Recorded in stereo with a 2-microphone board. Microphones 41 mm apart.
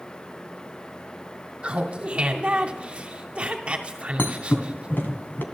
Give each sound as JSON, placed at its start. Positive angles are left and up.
{"t": 1.6, "sound": "laughter", "side_deg": -30, "distance_m": 2.5}
{"t": 4.2, "sound": "a thud", "side_deg": 55, "distance_m": 2.0}